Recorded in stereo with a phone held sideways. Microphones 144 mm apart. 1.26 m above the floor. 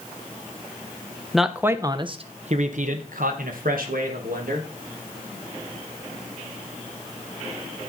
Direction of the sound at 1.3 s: Centre (ahead or behind).